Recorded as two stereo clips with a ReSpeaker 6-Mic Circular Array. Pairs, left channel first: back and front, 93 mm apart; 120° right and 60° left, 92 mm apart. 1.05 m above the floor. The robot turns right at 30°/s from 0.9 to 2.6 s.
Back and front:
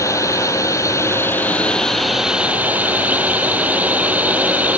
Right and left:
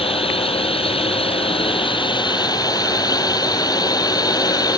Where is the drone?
125° right; by 4.8 s 75° right.